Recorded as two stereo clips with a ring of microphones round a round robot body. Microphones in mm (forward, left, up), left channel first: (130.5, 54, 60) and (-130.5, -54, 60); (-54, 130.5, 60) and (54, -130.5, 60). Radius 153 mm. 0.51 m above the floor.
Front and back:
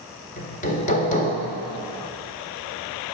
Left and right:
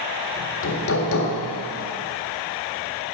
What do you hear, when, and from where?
0.4 s hammering: 80° left, 1.7 m